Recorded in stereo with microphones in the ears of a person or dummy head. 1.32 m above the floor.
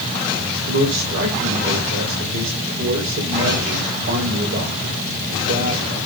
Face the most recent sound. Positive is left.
turn(degrees=-60)  # may be behind; listen again after turning